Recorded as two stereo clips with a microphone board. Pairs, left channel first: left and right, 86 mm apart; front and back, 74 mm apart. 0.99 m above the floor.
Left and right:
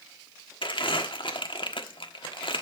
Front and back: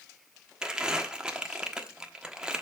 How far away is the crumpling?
About 1.2 m.